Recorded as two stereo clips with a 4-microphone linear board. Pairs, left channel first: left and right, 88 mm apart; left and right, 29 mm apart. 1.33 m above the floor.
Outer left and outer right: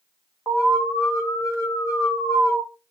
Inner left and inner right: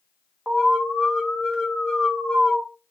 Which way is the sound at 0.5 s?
40° left (ahead or behind).